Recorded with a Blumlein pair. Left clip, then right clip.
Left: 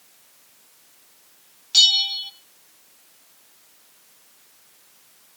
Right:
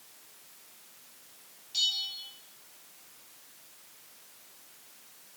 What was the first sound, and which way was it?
A bell, 55° left.